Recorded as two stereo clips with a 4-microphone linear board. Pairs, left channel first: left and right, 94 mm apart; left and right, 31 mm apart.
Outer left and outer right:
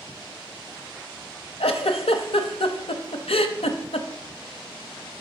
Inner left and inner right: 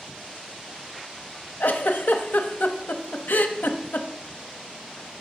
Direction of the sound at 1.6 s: 90° left.